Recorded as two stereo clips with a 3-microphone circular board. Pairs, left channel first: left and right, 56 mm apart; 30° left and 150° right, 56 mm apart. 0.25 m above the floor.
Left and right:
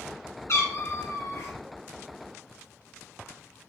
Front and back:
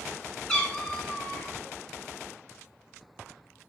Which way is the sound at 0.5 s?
105° left.